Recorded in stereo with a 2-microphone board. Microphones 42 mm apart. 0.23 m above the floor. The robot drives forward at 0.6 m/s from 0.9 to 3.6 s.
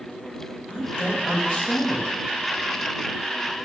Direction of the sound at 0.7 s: 25° left (ahead or behind).